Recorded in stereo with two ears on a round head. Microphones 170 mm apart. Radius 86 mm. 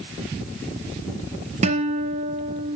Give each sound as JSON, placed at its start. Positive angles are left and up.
{"t": 1.6, "sound": "a guitar", "side_deg": -35, "distance_m": 1.2}